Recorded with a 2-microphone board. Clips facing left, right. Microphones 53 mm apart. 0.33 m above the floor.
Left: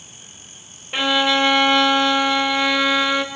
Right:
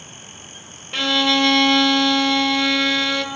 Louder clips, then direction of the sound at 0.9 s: Left 1 dB; 15° left (ahead or behind).